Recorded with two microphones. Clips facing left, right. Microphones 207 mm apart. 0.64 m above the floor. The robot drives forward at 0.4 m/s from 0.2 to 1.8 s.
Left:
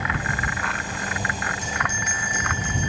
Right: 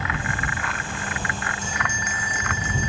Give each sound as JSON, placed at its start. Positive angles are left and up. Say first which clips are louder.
{"t": 1.6, "sound": "a bell", "louder": "even", "side_deg": 80, "distance_m": 3.5}